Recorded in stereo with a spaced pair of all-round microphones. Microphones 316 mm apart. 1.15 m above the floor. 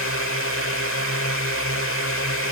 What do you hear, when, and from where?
0.0 s a drone: 45° left (ahead or behind)